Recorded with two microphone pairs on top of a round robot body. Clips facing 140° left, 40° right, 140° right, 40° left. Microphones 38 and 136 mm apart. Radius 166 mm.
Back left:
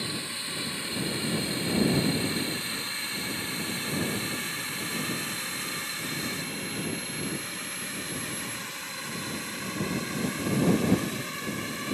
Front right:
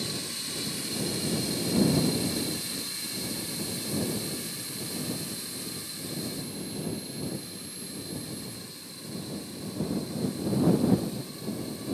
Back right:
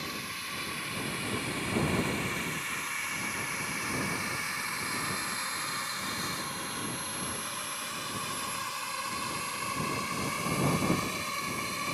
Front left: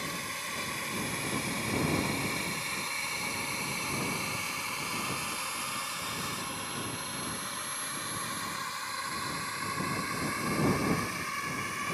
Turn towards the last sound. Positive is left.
turn(degrees=155)